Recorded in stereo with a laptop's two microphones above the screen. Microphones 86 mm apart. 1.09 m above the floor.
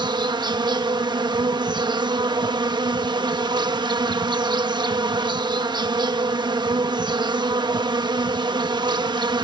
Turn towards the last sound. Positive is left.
turn(degrees=-60)  # may be behind; listen again after turning